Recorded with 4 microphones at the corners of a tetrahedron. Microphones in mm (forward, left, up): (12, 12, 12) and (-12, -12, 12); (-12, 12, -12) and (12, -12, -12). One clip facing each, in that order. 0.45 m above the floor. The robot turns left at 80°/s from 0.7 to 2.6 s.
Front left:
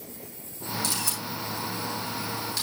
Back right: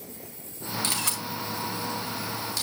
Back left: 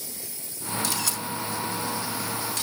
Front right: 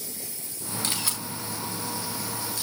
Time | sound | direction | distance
0.8 | a camera shutter | 90° right | 4.5 m